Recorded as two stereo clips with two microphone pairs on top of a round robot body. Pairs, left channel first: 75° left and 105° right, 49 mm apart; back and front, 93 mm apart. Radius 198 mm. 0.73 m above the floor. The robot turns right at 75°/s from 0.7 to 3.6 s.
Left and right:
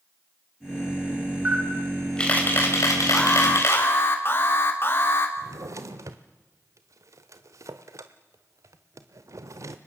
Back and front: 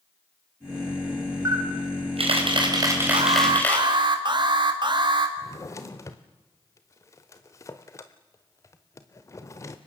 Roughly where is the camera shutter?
Ahead right.